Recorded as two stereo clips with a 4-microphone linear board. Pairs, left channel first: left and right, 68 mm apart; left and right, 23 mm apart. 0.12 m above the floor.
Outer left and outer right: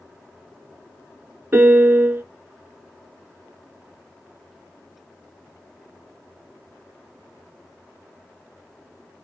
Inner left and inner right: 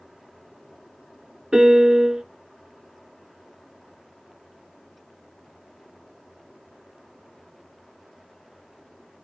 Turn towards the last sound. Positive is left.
turn(degrees=-35)  # may be behind; listen again after turning